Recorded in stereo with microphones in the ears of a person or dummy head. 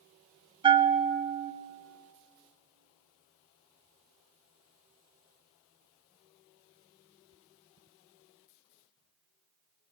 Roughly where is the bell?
Right.